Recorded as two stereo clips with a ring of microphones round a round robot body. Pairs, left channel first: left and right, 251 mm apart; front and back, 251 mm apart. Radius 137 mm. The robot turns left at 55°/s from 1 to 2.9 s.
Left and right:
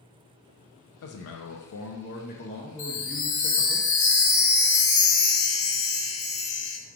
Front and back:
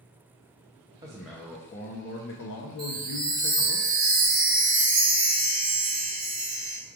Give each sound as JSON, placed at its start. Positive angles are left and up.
{"t": 1.0, "sound": "a man speaking", "azimuth_deg": 105, "distance_m": 0.5}
{"t": 2.8, "sound": "a chime", "azimuth_deg": 125, "distance_m": 1.0}